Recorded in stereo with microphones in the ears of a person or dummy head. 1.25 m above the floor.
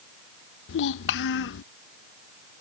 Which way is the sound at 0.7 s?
60° left (ahead or behind).